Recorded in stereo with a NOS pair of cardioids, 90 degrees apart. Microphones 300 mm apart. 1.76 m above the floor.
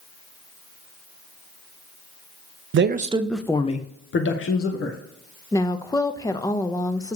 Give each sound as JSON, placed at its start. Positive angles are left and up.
{"t": 2.7, "sound": "a man speaking", "azimuth_deg": -45, "distance_m": 0.7}
{"t": 5.5, "sound": "a woman speaking", "azimuth_deg": 10, "distance_m": 0.9}